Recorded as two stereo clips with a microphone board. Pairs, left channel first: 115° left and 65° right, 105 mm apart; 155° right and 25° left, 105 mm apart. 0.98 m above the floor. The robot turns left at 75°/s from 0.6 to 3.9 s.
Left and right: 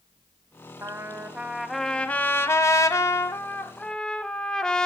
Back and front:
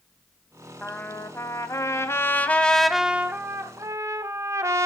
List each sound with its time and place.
0.8 s a trumpet: 90° right, 0.9 m; by 4.9 s 40° left, 0.9 m